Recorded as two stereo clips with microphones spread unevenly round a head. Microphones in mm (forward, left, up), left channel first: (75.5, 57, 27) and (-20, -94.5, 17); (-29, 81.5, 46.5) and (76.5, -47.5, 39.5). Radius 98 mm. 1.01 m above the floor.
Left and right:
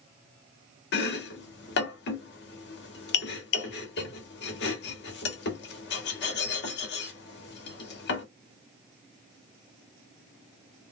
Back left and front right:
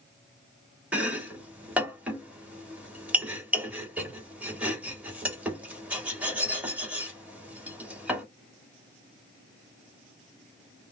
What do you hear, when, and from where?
0.9 s chopping: 30° left, 1.1 m